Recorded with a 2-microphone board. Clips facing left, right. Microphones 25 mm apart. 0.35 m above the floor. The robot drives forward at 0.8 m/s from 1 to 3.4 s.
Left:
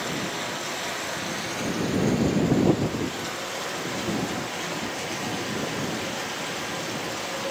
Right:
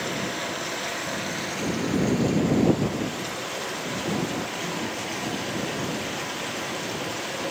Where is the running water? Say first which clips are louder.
Right 1 dB; 5° right (ahead or behind), 4 m; by 7.5 s centre (ahead or behind), 6 m.